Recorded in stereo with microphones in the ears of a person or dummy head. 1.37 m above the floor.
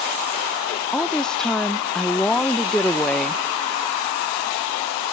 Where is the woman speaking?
5° left (ahead or behind), 0.7 m.